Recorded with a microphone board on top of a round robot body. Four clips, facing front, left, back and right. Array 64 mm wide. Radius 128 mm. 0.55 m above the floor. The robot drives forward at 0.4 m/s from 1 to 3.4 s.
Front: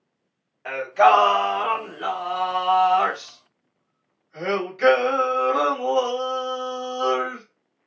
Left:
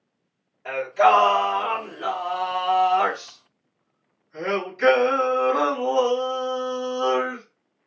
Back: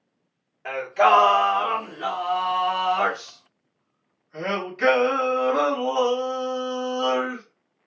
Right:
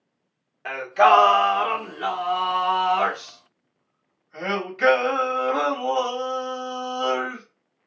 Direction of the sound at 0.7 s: 85° right.